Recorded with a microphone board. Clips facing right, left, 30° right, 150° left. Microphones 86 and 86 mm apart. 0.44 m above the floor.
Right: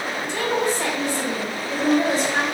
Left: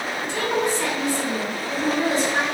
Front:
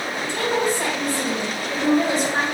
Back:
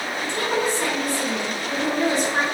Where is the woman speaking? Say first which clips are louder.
Right 1 dB, front 2 dB; 45° right, 1.6 m.